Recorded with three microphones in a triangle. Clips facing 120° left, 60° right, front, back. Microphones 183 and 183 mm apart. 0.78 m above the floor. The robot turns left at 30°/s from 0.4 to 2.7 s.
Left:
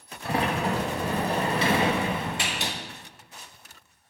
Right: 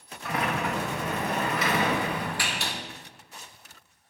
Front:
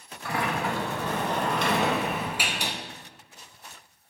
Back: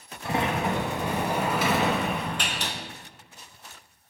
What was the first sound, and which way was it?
A sliding door, 135° left.